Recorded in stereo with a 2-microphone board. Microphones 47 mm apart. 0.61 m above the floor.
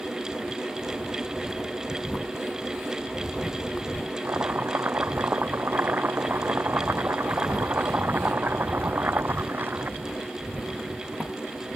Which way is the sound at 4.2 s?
45° right (ahead or behind).